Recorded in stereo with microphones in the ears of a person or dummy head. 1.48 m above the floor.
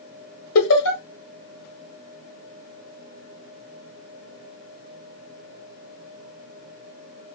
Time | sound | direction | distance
0.6 | laughter | 75° left (ahead or behind) | 0.9 m